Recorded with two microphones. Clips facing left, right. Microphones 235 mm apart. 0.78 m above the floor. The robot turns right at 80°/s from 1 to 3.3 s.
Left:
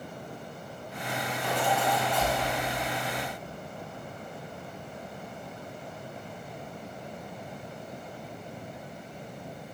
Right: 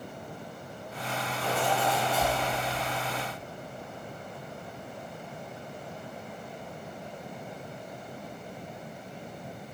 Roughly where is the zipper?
Ahead right.